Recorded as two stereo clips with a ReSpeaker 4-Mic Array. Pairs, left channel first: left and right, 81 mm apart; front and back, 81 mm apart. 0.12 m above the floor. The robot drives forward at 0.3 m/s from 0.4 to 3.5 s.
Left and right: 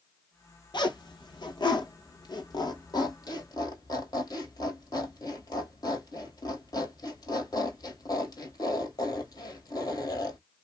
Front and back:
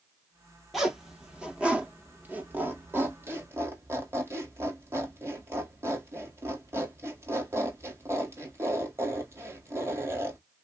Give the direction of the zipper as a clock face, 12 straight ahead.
9 o'clock.